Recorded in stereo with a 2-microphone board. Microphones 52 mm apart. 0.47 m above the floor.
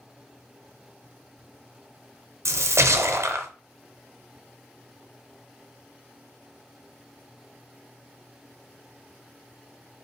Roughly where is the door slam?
No door slam in this recording.